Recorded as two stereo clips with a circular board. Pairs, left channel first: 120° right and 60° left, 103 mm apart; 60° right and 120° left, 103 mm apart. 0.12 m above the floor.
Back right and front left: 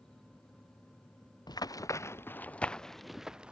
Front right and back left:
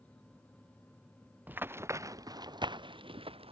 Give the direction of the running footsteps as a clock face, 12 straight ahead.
6 o'clock.